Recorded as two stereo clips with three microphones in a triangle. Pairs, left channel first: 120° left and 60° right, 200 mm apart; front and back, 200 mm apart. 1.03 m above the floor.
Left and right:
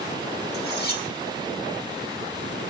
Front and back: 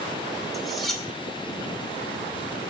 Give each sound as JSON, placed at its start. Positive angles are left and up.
{"t": 0.5, "sound": "cutlery clinking", "azimuth_deg": 90, "distance_m": 1.1}